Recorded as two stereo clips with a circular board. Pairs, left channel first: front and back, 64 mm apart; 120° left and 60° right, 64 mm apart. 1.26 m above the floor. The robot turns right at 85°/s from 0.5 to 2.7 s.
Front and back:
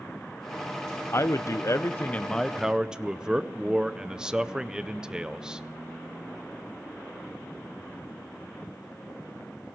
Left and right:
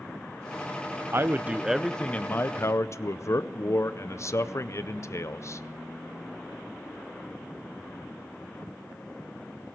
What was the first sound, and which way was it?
A man speaking, 30° right.